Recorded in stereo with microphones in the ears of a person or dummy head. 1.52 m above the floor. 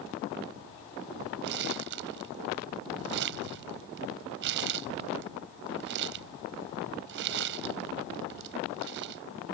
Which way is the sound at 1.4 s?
60° right (ahead or behind).